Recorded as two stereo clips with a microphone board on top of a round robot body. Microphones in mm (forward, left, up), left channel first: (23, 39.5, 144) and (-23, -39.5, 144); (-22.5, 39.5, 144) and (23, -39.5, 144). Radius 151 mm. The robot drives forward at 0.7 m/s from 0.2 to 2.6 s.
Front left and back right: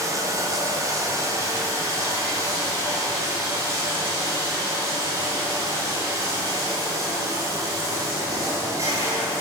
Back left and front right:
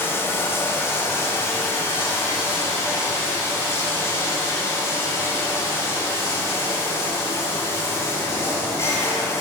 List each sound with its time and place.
0.0 s running water: 175° right, 2.5 m